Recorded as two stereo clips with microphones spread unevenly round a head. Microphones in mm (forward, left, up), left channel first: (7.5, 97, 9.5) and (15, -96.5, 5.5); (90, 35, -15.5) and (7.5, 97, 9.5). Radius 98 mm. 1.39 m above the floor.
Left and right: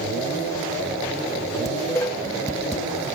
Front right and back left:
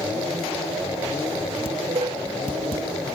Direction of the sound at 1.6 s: 165° left.